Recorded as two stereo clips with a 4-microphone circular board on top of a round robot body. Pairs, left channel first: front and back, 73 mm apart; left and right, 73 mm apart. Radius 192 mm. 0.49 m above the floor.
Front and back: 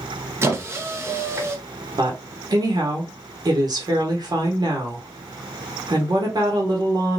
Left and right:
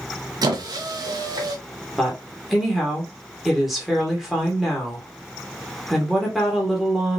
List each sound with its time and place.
0.4 s a squeak: 125° right, 0.6 m
2.0 s a woman speaking: straight behind, 1.5 m